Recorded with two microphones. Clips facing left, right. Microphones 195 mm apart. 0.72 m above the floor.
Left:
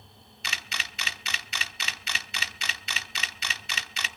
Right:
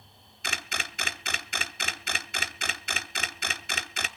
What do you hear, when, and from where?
0.4 s a camera shutter: 50° right (ahead or behind), 0.6 m